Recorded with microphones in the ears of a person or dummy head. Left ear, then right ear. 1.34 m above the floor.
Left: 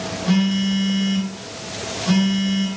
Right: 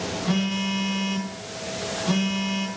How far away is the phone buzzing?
About 7 m.